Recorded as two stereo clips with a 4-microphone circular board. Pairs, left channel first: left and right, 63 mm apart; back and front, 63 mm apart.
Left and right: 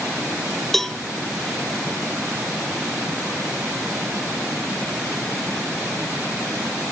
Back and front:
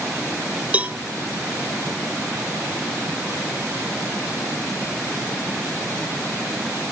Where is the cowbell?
15° left, 0.5 m.